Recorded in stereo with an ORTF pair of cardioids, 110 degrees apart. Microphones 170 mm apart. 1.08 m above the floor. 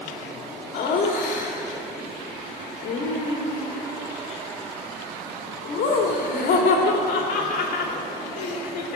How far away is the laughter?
About 2.5 m.